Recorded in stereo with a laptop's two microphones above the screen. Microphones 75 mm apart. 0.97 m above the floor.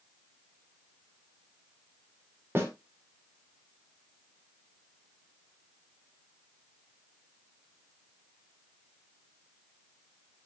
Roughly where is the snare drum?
Right.